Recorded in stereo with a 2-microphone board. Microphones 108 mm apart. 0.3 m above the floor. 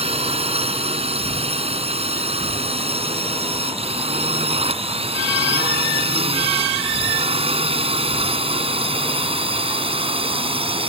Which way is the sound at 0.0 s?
65° right (ahead or behind).